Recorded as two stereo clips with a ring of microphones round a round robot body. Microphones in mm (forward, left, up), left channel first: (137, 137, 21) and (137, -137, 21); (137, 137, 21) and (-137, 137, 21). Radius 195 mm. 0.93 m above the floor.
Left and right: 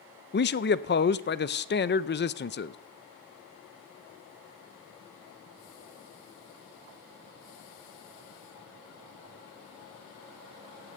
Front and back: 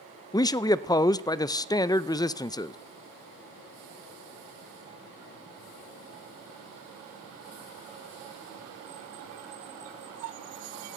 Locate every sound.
0.3 s a man speaking: 70° left, 0.5 m